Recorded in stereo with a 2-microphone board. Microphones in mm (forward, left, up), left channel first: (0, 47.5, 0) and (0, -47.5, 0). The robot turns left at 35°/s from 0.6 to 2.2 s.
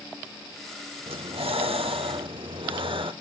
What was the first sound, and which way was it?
Breathing, 75° right.